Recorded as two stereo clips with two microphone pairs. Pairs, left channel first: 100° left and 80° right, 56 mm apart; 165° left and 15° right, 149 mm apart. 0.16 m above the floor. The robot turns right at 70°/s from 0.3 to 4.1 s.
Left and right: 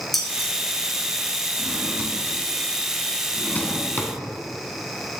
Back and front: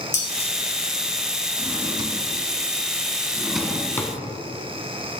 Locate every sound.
0.1 s dishes clattering: 175° right, 2 m; by 0.5 s 160° right, 2 m
1.6 s a drawer: 70° right, 0.9 m; by 4.1 s 105° left, 0.9 m